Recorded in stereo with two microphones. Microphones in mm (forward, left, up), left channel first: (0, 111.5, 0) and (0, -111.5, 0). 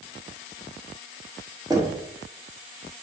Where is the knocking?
15° right (ahead or behind), 1.3 m.